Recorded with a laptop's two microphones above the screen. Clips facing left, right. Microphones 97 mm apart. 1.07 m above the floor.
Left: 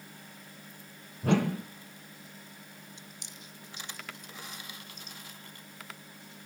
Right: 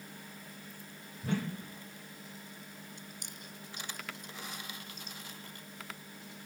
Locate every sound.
1.2 s a whoosh: 75° left (ahead or behind)
3.0 s chewing: 50° right (ahead or behind)